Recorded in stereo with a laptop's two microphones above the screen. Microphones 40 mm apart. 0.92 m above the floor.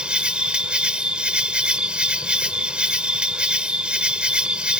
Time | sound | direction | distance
0.0 | an insect | 25° right (ahead or behind) | ?